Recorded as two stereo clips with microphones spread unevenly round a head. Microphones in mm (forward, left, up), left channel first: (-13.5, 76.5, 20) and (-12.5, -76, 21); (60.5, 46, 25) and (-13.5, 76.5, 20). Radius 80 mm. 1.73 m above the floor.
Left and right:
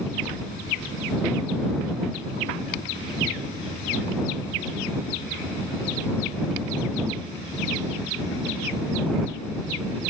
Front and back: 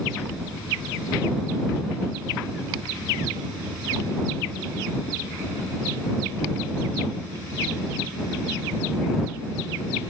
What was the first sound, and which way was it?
Only background noise.